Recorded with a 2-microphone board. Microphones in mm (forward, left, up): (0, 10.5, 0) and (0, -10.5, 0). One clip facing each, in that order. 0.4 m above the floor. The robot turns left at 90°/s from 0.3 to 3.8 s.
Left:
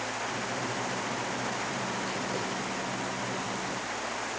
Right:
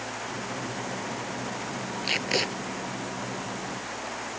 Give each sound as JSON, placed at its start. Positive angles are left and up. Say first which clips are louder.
{"t": 2.0, "sound": "tape being pulled", "louder": "right 6 dB", "azimuth_deg": -55}